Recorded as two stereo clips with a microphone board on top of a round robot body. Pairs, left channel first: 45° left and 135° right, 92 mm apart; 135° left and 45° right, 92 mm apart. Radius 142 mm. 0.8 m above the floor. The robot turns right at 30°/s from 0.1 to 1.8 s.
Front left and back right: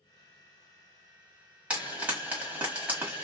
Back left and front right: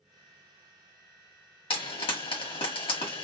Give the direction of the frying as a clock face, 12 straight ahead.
7 o'clock.